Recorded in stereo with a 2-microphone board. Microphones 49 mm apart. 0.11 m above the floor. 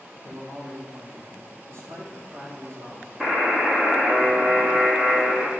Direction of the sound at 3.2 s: 10° right (ahead or behind).